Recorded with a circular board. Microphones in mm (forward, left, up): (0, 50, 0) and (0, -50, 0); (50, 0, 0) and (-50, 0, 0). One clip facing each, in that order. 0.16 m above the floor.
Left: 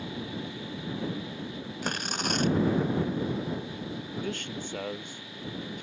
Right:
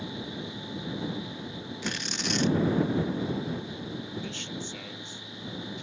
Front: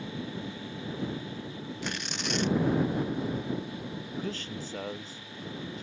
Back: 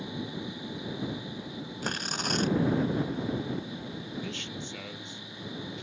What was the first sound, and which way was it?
Tearing paper, 135° left.